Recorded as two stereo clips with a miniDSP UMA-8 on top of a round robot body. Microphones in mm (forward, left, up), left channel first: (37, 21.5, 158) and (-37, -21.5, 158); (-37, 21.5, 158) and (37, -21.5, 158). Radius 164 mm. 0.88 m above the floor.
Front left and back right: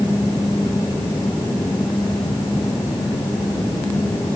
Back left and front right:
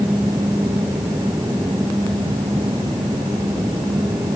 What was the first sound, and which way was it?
Only background noise.